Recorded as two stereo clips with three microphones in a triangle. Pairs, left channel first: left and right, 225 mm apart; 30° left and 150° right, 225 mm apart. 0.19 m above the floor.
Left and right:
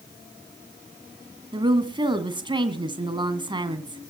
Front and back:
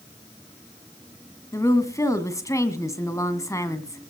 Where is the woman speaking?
35° right, 1.7 m.